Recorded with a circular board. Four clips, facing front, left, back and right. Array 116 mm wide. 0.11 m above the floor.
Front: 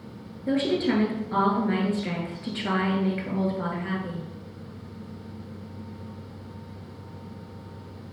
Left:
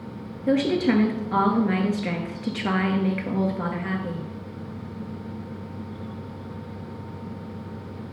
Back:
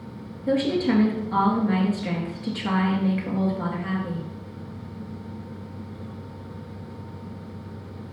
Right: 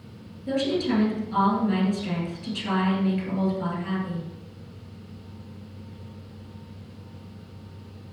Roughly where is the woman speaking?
Left.